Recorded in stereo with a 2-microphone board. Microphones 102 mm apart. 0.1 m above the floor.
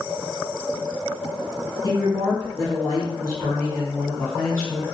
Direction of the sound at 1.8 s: 35° left (ahead or behind).